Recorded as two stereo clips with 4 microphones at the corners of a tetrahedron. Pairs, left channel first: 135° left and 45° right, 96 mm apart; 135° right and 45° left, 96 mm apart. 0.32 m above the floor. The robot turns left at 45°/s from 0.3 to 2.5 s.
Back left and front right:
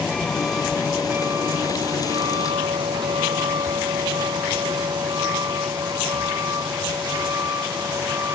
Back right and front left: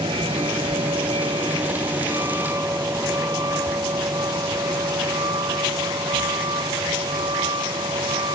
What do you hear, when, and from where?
0.0 s a vehicle: 40° left; by 8.3 s 15° left